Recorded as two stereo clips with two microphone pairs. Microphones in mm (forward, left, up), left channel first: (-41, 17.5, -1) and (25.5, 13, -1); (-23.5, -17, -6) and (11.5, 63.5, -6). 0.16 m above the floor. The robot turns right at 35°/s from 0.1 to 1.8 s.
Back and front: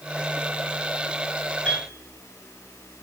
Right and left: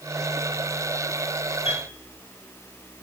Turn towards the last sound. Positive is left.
turn(degrees=-105)